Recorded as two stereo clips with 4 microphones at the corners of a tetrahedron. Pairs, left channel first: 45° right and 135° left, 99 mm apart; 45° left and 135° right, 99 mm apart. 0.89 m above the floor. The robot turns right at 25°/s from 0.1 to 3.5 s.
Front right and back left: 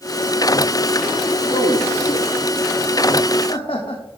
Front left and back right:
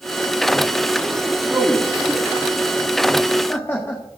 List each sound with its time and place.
1.5 s a man speaking: 70° right, 1.6 m; by 4.0 s 20° right, 1.6 m